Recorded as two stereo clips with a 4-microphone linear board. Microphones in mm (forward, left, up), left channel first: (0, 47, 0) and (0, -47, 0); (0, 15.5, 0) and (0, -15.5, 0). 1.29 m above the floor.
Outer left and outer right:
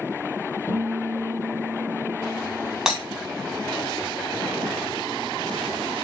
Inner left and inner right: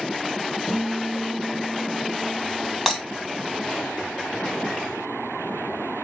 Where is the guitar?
10° left (ahead or behind), 1.0 m.